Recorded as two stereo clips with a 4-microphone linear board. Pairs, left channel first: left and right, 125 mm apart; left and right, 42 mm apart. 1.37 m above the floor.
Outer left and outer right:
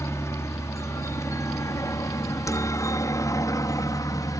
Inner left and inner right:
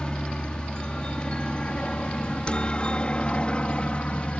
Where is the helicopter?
20° left (ahead or behind); by 4.4 s 30° left (ahead or behind).